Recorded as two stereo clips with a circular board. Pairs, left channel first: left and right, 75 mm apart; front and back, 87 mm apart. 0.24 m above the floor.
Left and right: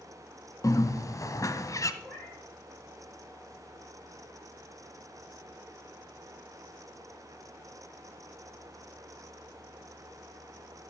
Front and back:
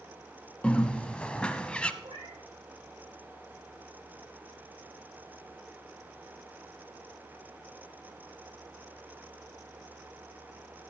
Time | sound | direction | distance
0.6 | a bird | 75° left | 1.0 m
2.0 | a cat meowing | 160° left | 7.5 m